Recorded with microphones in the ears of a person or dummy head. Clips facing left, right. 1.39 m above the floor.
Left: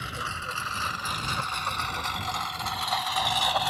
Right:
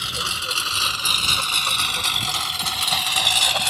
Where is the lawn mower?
55° right (ahead or behind); by 3.7 s 35° right (ahead or behind).